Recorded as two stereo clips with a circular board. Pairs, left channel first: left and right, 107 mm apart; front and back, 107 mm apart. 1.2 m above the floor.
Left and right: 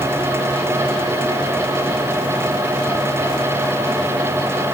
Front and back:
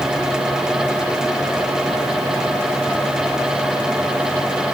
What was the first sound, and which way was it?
Only background noise.